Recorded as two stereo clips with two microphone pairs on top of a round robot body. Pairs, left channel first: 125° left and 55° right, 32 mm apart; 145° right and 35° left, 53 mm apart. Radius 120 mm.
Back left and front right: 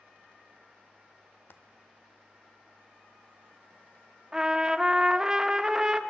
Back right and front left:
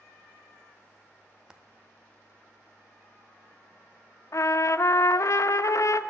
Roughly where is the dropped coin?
Behind left.